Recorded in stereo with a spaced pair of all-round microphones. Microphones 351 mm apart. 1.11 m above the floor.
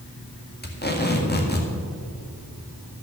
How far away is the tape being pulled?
About 1.7 m.